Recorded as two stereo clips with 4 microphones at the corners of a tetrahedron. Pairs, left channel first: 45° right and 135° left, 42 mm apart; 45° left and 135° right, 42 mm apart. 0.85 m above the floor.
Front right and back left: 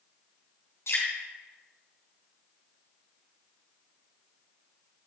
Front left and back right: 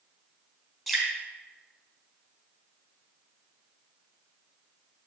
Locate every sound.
0.9 s dripping: 55° right, 4 m